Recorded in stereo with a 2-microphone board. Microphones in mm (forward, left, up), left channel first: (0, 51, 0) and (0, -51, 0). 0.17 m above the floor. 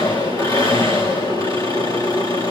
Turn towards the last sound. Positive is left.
turn(degrees=45)  # may be behind; listen again after turning